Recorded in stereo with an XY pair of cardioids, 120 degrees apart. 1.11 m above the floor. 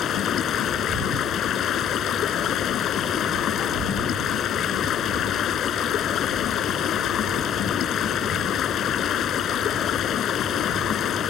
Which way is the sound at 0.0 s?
55° left.